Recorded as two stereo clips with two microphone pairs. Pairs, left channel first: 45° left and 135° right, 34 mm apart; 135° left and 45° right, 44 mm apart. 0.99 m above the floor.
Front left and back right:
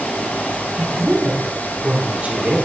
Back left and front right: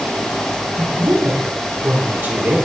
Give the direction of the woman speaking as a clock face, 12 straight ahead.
2 o'clock.